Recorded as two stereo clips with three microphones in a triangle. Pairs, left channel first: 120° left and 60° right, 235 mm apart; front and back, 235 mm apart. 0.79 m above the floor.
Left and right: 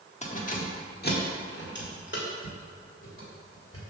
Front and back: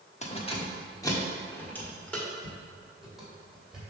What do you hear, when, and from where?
0.2 s keys jangling: 60° left, 1.0 m; by 3.8 s 95° left, 2.5 m